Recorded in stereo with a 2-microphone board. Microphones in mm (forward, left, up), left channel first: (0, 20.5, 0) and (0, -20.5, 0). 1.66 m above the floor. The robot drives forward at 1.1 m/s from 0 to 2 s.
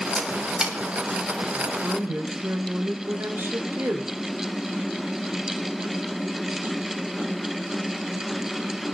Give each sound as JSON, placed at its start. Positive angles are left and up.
{"t": 0.2, "sound": "a camera shutter", "side_deg": -25, "distance_m": 1.8}
{"t": 1.6, "sound": "a woman speaking", "side_deg": -80, "distance_m": 2.5}